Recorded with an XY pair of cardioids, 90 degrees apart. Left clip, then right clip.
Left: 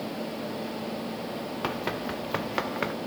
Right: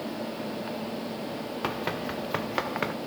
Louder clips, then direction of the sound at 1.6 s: Even; 5° right.